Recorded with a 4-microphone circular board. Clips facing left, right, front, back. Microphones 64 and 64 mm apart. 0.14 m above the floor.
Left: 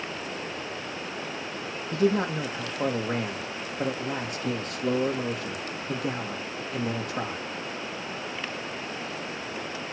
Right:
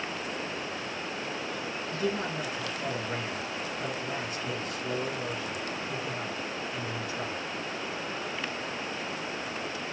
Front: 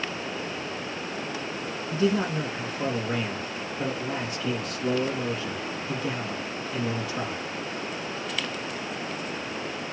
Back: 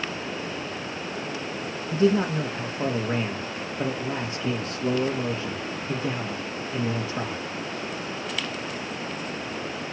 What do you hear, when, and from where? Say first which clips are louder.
1.9 s a man speaking: left 8 dB, back 3 dB; 120° left, 4 m